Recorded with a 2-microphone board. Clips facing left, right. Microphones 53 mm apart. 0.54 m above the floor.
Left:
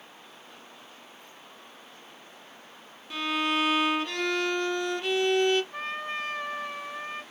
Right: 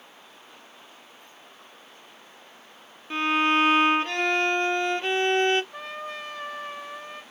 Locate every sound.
3.1 s a violin: 35° right (ahead or behind), 0.5 m
5.7 s a trumpet: 45° left (ahead or behind), 1.8 m